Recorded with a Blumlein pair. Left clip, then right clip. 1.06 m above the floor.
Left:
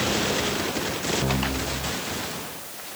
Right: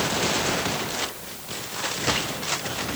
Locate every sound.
Only background noise.